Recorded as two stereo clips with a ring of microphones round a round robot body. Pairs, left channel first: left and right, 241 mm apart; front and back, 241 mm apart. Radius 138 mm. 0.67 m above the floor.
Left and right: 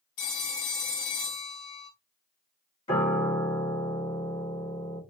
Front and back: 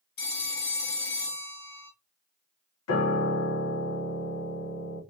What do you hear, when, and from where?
0.2 s a phone ringing: 55° left, 1.1 m
2.9 s a piano: 20° left, 1.2 m